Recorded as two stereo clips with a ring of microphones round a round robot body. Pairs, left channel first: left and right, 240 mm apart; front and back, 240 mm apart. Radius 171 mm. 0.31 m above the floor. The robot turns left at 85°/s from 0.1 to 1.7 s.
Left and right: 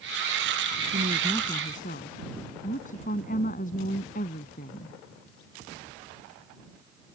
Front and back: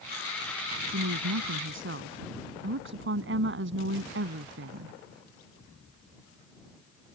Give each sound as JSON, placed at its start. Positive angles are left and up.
{"t": 0.9, "sound": "a woman speaking", "azimuth_deg": -140}